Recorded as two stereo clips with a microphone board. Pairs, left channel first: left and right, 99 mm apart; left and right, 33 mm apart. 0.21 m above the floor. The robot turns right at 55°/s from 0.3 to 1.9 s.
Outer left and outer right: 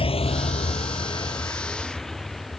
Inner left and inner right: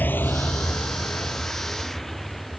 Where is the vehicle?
65° left (ahead or behind); by 2.6 s centre (ahead or behind).